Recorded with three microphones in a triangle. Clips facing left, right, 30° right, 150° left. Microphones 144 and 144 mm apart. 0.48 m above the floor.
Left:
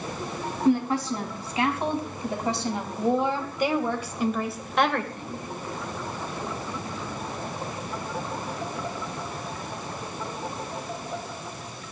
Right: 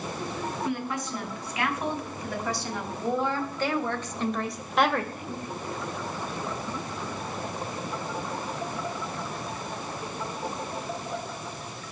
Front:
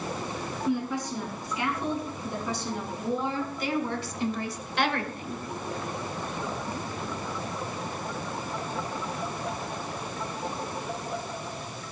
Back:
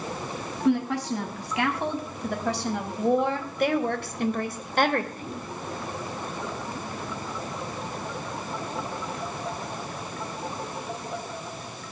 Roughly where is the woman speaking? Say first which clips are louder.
Left 14 dB, back 6 dB; behind left.